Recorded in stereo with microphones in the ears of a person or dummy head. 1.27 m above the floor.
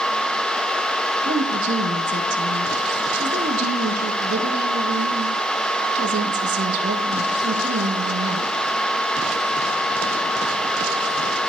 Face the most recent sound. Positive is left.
turn(degrees=-50)  # may be behind; listen again after turning